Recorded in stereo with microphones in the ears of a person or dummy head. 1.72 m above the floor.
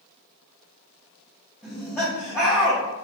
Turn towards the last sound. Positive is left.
turn(degrees=15)  # may be behind; listen again after turning